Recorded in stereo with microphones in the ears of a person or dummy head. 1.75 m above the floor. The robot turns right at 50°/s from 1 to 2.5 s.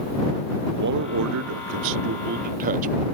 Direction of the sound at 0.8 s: 120° right.